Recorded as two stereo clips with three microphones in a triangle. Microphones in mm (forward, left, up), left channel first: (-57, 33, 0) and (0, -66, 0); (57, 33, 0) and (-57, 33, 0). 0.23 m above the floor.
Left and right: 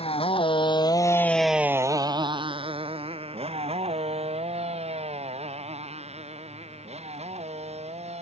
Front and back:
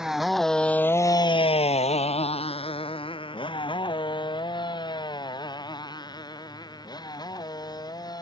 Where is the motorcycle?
95° left; by 8.2 s 50° right.